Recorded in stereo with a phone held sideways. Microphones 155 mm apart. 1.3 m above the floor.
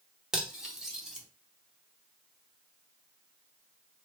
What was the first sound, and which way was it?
Cutlery clinking, 5° right (ahead or behind).